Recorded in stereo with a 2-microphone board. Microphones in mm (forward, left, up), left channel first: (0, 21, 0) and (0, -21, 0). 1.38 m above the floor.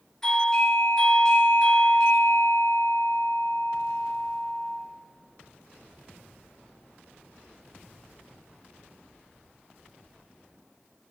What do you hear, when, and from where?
0.2 s a doorbell: 15° left (ahead or behind), 4 m